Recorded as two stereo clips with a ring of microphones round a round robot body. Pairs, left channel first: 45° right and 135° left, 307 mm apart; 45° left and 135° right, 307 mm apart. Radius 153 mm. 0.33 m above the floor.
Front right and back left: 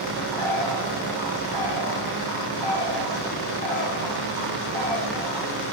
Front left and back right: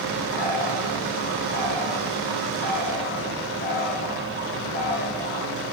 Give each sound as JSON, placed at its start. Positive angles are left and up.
{"t": 0.3, "sound": "a bird", "azimuth_deg": 105, "distance_m": 7.5}